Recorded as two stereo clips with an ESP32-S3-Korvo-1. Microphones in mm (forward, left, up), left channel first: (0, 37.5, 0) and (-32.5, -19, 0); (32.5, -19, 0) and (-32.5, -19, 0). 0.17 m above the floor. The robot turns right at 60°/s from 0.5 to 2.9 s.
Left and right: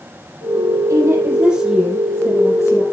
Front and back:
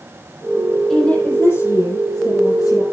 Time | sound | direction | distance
0.9 | a woman speaking | 80° right | 5 m